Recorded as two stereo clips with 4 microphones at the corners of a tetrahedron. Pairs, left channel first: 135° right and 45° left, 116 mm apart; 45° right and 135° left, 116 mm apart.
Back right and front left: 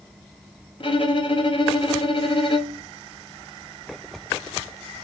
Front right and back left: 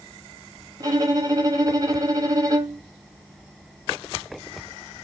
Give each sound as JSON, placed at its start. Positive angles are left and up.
{"t": 0.8, "sound": "a violin", "azimuth_deg": -170, "distance_m": 0.9}